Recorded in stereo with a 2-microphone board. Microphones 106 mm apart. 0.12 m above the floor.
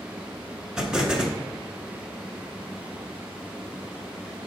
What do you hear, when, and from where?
0.8 s an explosion: 10° right (ahead or behind), 1.3 m